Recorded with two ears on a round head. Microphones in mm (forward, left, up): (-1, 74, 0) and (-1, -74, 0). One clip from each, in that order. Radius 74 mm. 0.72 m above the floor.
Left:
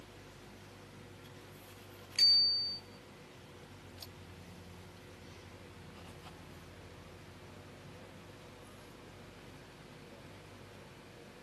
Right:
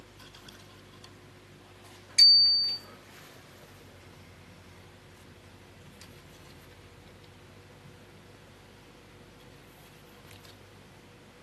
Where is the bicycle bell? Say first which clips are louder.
Right 8 dB; 80° right, 2.5 m.